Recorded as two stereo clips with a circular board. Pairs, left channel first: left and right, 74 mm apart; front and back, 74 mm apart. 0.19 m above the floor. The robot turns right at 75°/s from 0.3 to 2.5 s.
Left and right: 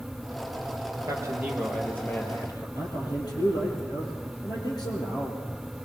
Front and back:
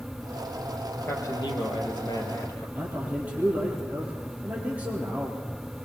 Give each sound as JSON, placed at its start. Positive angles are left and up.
{"t": 1.1, "sound": "a man speaking", "azimuth_deg": -50, "distance_m": 4.5}
{"t": 2.8, "sound": "a man speaking", "azimuth_deg": 110, "distance_m": 5.5}